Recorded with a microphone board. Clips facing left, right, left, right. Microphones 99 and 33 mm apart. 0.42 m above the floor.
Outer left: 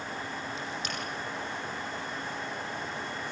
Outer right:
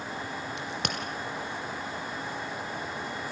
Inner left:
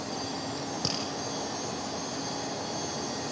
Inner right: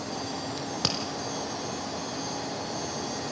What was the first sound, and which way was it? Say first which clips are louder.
A crack: outer right 2 dB, inner right 4 dB; 70° right (ahead or behind).